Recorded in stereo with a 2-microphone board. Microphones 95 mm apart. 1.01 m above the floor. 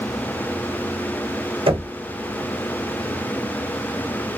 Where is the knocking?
85° right, 1.1 m.